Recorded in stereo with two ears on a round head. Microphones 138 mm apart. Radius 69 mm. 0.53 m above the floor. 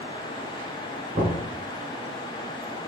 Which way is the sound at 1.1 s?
45° right (ahead or behind).